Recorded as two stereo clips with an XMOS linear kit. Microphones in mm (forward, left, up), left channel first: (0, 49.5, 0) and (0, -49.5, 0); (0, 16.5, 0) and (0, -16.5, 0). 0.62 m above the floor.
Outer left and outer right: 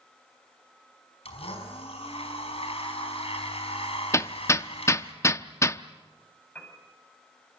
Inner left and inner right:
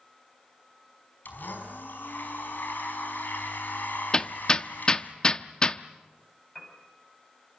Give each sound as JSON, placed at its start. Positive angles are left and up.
{"t": 1.2, "sound": "a blender", "side_deg": 80, "distance_m": 4.5}
{"t": 4.1, "sound": "hammering", "side_deg": 30, "distance_m": 0.6}
{"t": 6.5, "sound": "a piano", "side_deg": 15, "distance_m": 5.0}